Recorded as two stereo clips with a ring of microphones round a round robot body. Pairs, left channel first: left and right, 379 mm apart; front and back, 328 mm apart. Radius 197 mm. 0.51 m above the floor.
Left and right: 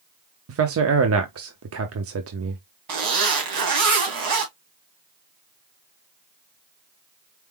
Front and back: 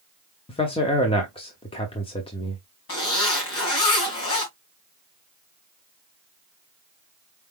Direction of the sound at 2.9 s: 55° right.